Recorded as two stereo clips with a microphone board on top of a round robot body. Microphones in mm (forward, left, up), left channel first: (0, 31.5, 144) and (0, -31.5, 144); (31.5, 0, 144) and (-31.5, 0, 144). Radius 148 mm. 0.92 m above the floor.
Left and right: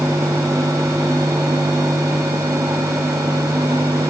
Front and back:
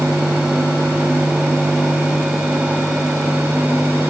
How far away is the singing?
No singing in this recording.